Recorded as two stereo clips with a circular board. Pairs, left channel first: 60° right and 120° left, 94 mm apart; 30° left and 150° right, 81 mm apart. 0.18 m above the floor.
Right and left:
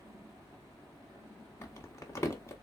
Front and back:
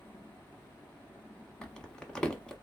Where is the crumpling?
45° right, 0.9 m.